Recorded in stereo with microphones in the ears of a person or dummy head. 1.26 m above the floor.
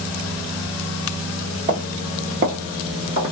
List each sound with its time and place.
1.7 s footsteps: 35° right (ahead or behind), 1.8 m; by 3.3 s 5° right (ahead or behind), 1.2 m